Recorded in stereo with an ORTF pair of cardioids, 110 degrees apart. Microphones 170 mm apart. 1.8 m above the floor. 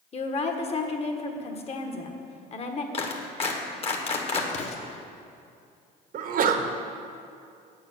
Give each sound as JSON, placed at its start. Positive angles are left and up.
{"t": 0.1, "sound": "a woman speaking", "azimuth_deg": 40, "distance_m": 1.6}
{"t": 2.9, "sound": "a clap", "azimuth_deg": 35, "distance_m": 1.6}
{"t": 4.5, "sound": "an explosion", "azimuth_deg": 45, "distance_m": 1.3}
{"t": 6.1, "sound": "a sneeze", "azimuth_deg": -55, "distance_m": 1.2}